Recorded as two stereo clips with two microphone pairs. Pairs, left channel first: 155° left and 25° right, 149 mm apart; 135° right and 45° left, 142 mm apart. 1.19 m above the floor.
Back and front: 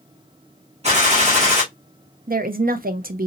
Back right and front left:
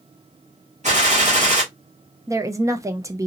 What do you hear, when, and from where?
0.8 s a gunshot: 20° left, 2.5 m
2.3 s a woman speaking: 15° right, 0.5 m